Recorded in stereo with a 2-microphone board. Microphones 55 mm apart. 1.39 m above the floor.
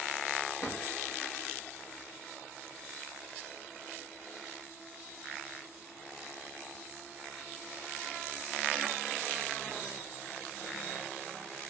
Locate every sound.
0.6 s a drawer: 50° left (ahead or behind), 1.3 m